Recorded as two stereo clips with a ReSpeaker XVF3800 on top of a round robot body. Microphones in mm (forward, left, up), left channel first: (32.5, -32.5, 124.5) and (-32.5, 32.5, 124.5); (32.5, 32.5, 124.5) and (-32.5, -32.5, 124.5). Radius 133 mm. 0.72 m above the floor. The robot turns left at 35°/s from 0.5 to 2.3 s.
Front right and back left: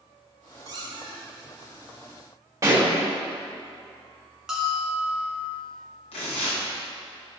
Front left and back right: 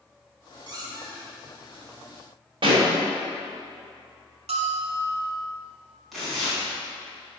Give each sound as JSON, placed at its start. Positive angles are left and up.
{"t": 0.7, "sound": "a squeak", "azimuth_deg": -175, "distance_m": 2.0}
{"t": 2.6, "sound": "a pop", "azimuth_deg": -165, "distance_m": 3.0}
{"t": 4.5, "sound": "a bell", "azimuth_deg": -140, "distance_m": 1.4}
{"t": 6.1, "sound": "tearing paper", "azimuth_deg": -45, "distance_m": 3.0}